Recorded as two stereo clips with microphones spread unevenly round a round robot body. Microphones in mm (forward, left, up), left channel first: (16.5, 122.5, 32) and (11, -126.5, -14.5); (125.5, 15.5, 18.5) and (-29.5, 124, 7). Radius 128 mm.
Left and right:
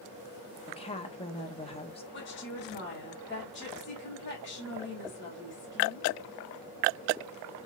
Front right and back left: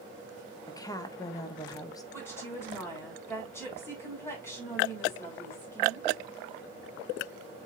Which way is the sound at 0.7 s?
25° left.